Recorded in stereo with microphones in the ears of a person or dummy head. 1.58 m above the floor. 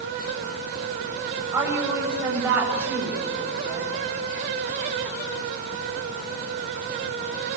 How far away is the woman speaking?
About 8 m.